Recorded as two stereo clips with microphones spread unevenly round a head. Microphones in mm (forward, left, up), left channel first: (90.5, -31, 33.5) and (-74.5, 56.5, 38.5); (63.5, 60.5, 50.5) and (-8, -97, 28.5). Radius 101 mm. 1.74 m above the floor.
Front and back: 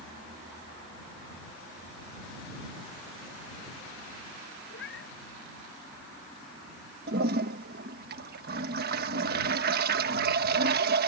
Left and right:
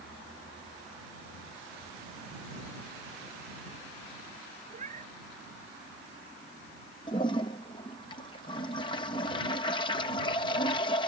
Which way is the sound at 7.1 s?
125° left.